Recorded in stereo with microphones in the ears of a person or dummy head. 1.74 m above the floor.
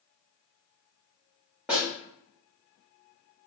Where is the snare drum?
5° right (ahead or behind), 0.7 m.